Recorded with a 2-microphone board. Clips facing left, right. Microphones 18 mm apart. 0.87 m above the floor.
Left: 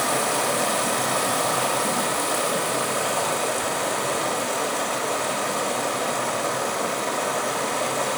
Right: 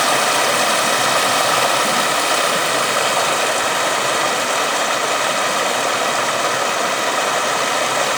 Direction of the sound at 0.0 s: 60° right (ahead or behind).